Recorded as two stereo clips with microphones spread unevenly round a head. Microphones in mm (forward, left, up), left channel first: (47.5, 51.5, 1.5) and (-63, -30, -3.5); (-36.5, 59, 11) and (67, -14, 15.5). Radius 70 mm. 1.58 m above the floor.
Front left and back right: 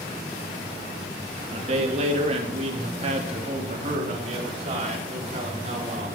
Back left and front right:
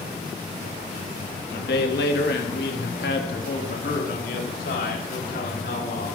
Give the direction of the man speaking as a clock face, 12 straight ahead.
6 o'clock.